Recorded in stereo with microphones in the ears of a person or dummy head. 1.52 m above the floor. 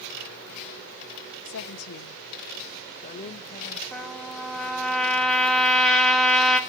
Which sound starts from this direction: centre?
A trumpet, at 3.9 s.